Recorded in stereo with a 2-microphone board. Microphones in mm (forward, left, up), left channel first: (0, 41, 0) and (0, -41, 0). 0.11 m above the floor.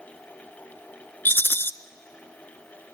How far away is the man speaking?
I don't hear a man speaking.